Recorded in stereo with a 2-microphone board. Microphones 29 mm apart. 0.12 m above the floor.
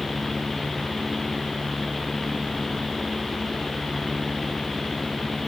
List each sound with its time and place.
Only background noise.